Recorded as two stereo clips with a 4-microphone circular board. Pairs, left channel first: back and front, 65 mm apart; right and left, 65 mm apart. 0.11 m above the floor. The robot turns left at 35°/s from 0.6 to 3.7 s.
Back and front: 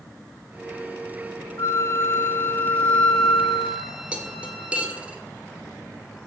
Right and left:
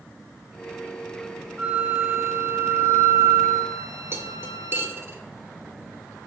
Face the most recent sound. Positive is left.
turn(degrees=60)